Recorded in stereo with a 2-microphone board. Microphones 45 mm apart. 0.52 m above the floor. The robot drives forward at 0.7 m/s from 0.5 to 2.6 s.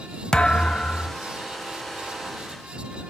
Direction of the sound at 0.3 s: 15° left (ahead or behind).